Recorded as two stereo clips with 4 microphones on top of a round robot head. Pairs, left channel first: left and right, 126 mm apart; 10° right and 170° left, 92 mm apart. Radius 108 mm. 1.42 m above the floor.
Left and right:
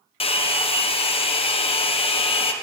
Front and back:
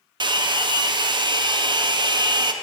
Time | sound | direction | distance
0.2 | a hair dryer | 135° left | 0.9 m